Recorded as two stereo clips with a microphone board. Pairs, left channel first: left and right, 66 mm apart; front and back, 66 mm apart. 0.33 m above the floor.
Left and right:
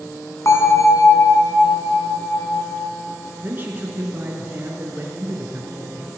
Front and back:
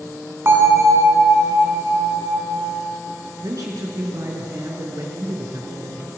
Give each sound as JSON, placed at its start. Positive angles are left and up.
{"t": 0.5, "sound": "a bell", "azimuth_deg": 130, "distance_m": 3.5}
{"t": 3.4, "sound": "a man speaking", "azimuth_deg": -150, "distance_m": 5.0}